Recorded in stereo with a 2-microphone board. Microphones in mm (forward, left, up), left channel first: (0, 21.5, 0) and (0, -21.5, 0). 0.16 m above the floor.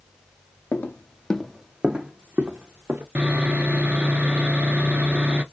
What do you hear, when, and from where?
0.7 s footsteps: 55° left (ahead or behind), 0.6 m; by 3.0 s 55° right (ahead or behind), 1.2 m
3.1 s sawing: 35° right (ahead or behind), 0.6 m